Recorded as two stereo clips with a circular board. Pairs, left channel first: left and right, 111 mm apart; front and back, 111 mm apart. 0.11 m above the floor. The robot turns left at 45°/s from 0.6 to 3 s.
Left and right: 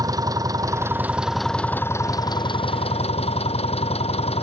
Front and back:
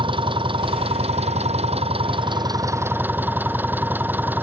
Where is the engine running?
145° right; by 4.4 s 110° left.